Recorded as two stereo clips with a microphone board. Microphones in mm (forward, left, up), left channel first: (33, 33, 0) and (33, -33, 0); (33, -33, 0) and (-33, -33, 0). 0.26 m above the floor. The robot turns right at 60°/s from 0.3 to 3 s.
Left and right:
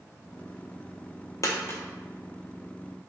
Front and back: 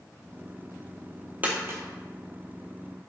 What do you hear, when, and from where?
1.4 s a dropped coin: 115° left, 0.5 m; by 1.8 s 140° left, 0.5 m